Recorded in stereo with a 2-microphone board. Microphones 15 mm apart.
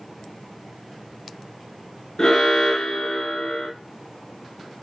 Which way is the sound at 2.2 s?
30° left (ahead or behind).